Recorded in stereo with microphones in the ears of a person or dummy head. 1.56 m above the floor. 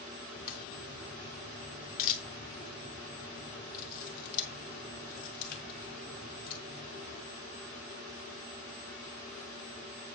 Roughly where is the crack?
Left.